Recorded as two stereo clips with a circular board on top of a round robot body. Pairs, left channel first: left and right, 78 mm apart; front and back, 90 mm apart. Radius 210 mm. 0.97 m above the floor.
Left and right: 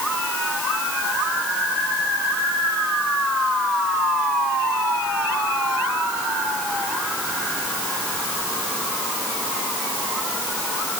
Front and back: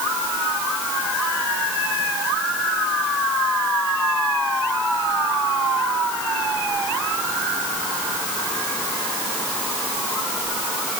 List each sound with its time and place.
Only background noise.